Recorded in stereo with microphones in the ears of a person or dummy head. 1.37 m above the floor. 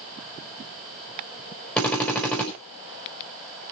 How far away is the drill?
About 5 m.